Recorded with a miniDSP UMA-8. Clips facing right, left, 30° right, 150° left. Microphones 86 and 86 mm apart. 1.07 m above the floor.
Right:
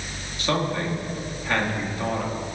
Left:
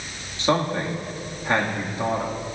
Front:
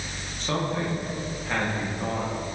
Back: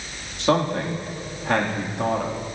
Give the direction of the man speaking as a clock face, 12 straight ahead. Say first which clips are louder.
Left 3 dB, back 7 dB; 7 o'clock.